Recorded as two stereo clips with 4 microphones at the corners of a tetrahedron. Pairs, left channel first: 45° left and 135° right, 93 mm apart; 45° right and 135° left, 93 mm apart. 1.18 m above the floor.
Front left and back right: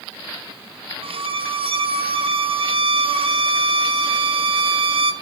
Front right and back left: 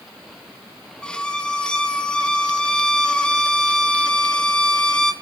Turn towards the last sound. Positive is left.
turn(degrees=-125)